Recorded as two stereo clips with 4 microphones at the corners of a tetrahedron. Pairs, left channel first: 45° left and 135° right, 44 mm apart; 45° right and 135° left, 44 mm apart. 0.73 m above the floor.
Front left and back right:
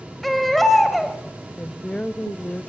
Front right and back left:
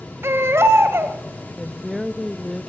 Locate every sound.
0.2 s a baby crying: 135° left, 2.0 m
1.6 s a woman speaking: 30° left, 0.6 m